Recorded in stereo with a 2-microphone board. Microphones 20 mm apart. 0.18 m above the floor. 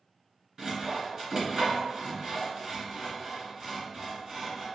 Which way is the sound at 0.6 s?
40° right (ahead or behind).